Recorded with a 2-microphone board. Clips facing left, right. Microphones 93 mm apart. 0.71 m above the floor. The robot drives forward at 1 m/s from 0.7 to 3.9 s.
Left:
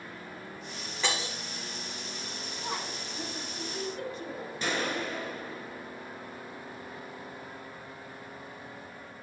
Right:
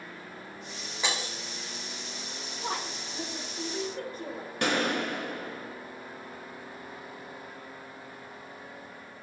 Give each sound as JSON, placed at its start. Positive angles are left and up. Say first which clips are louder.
{"t": 1.0, "sound": "breaking glass", "louder": "left 1 dB", "side_deg": -15, "distance_m": 5.0}
{"t": 2.6, "sound": "a woman speaking", "louder": "right 2 dB", "side_deg": -65, "distance_m": 2.0}
{"t": 4.6, "sound": "a gunshot", "louder": "right 4 dB", "side_deg": -65, "distance_m": 1.6}